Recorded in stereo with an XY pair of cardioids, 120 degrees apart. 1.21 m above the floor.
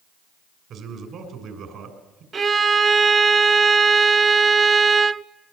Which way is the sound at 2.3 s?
40° right.